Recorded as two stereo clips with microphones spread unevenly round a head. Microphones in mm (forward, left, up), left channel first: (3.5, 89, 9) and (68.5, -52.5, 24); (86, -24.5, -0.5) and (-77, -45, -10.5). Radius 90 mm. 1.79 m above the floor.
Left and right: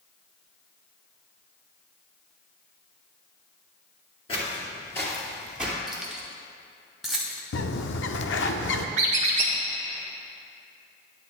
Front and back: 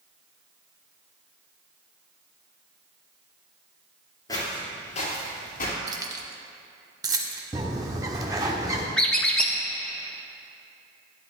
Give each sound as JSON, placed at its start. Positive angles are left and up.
{"t": 4.3, "sound": "footsteps", "azimuth_deg": 65, "distance_m": 2.5}
{"t": 5.9, "sound": "keys jangling", "azimuth_deg": -140, "distance_m": 0.9}
{"t": 7.5, "sound": "a bird", "azimuth_deg": 115, "distance_m": 0.5}
{"t": 9.0, "sound": "a squeak", "azimuth_deg": -70, "distance_m": 1.1}